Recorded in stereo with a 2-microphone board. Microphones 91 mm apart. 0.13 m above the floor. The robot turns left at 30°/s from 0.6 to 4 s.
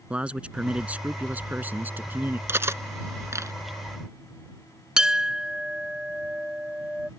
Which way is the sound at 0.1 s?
15° right (ahead or behind).